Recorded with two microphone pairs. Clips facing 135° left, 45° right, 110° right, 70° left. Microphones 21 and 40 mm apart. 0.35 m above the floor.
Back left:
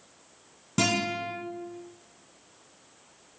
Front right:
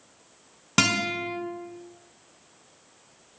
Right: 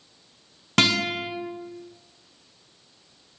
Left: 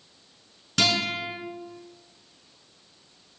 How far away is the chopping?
No chopping in this recording.